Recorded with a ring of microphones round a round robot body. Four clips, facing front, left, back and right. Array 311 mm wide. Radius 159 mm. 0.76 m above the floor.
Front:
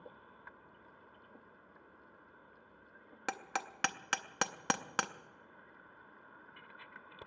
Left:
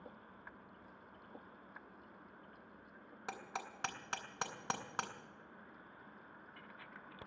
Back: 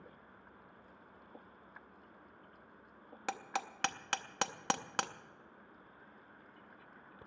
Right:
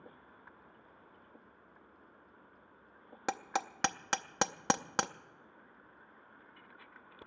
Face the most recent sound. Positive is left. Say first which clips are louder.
# right 10 dB, even
turn(degrees=-75)